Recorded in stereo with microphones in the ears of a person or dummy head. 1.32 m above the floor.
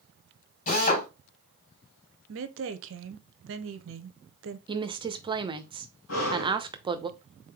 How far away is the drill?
About 3 m.